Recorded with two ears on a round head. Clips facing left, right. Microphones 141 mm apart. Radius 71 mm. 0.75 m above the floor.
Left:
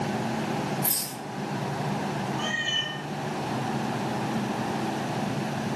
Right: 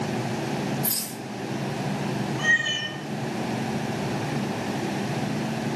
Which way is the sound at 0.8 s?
20° left (ahead or behind).